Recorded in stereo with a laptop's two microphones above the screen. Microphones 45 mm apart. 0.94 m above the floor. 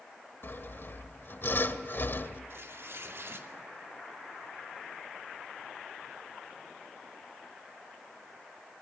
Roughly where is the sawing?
Left.